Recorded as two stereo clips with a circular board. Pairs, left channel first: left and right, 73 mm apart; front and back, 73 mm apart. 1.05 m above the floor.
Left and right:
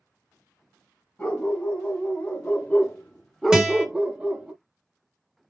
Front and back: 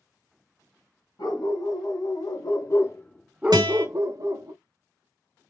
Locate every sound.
1.2 s a dog barking: 20° left, 3 m; by 4.5 s 165° right, 1.7 m
3.5 s a guitar: 170° right, 1.7 m